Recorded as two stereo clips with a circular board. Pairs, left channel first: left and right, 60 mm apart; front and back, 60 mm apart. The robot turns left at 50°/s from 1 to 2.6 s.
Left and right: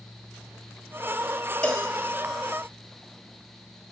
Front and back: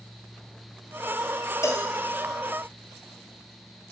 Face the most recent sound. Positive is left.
turn(degrees=-30)